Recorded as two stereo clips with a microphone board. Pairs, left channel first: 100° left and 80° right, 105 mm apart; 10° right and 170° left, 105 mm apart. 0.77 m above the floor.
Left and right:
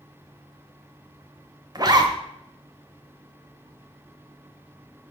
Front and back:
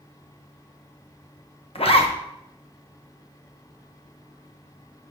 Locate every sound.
1.8 s a zipper: 30° right, 0.9 m